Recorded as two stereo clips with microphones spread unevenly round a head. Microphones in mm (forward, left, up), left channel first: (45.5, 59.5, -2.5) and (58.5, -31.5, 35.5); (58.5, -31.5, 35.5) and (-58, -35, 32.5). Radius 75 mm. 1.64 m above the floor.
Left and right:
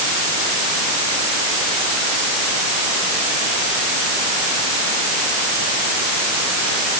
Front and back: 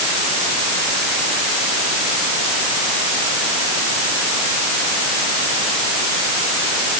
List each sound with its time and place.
Only background noise.